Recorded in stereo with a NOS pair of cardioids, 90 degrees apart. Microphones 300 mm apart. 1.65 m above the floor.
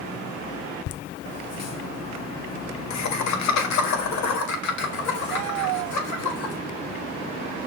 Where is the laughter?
50° left, 0.7 m; by 6.5 s 70° left, 3.5 m.